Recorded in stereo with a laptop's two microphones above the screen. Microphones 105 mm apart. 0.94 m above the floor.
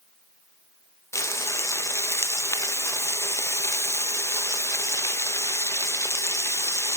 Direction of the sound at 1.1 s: 25° left (ahead or behind).